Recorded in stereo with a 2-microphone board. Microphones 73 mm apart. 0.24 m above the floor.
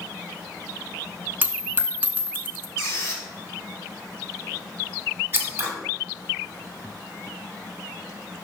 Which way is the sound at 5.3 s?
30° right (ahead or behind).